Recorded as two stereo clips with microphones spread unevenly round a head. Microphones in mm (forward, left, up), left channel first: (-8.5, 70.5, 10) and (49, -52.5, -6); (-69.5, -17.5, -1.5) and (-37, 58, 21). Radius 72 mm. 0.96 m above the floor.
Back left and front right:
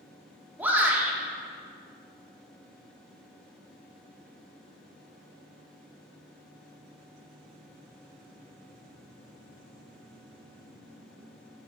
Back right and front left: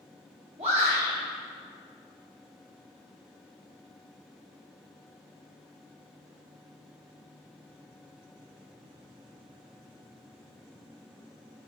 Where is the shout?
15° left, 1.8 m.